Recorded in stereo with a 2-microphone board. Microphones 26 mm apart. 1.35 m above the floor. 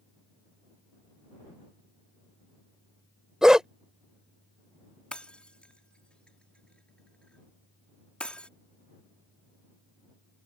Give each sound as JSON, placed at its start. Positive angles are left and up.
{"t": 3.4, "sound": "a dog barking", "side_deg": -25}
{"t": 5.1, "sound": "breaking glass", "side_deg": 45}